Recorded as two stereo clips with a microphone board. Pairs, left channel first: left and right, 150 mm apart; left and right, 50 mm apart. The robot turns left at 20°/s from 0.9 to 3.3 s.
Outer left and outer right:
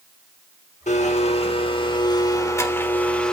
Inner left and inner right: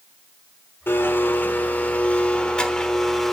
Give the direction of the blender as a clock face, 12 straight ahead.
10 o'clock.